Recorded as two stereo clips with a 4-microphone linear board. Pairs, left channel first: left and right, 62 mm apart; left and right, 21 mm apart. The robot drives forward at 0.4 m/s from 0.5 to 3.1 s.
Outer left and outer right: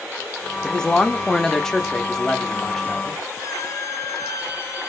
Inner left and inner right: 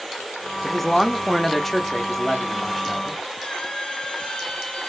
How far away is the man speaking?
About 0.5 m.